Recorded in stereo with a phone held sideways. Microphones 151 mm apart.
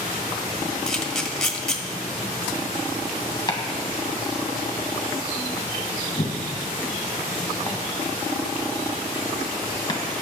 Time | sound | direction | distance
0.9 | a camera shutter | 5° left (ahead or behind) | 1.3 m
3.5 | chopping | 30° left (ahead or behind) | 1.7 m